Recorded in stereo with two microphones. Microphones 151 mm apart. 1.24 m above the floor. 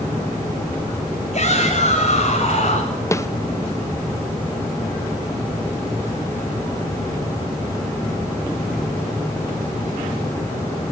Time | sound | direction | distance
1.3 | a shout | 50° left (ahead or behind) | 5 m
3.1 | a snare drum | 20° left (ahead or behind) | 0.7 m